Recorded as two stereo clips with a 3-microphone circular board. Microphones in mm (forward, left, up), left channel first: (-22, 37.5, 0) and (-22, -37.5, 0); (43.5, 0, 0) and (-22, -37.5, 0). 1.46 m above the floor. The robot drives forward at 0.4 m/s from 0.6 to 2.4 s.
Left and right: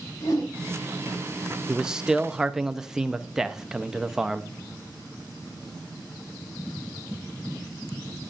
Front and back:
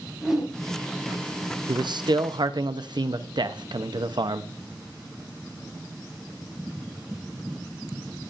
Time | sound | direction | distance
0.2 | a whoosh | 125° left | 5.5 m
1.7 | a man speaking | 170° right | 0.6 m